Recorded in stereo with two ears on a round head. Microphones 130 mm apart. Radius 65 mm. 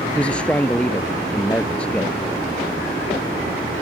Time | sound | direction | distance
0.1 | a man speaking | 10° left (ahead or behind) | ?